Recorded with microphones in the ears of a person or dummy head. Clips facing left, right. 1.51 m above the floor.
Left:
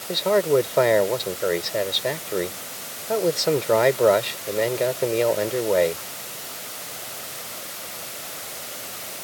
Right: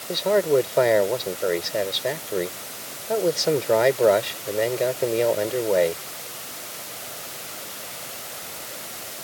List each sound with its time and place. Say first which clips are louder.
0.1 s a man speaking: even; centre (ahead or behind)